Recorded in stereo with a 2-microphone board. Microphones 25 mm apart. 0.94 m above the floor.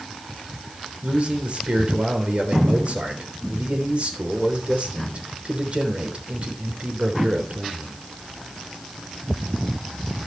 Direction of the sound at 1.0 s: 50° right (ahead or behind).